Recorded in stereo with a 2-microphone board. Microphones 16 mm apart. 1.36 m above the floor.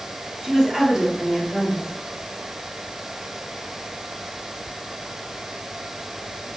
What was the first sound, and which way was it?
A woman speaking, 35° right (ahead or behind).